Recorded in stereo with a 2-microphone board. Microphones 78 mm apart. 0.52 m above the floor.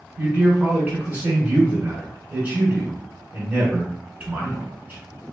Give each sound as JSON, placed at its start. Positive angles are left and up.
{"t": 0.2, "sound": "a man speaking", "side_deg": -25, "distance_m": 1.4}